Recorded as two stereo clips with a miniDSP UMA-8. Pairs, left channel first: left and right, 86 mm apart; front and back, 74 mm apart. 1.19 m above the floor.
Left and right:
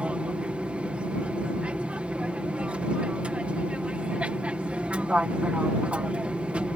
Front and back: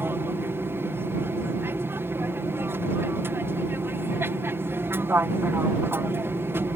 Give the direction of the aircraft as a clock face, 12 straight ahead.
5 o'clock.